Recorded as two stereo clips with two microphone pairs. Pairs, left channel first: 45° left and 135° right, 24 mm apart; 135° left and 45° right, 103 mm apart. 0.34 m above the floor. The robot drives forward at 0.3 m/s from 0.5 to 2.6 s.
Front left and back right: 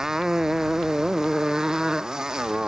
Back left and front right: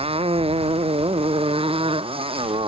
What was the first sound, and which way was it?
A motorcycle, 65° right.